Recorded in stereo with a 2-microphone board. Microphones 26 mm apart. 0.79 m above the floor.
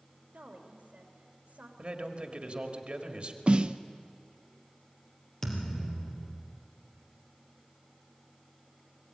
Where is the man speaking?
50° right (ahead or behind), 2 m.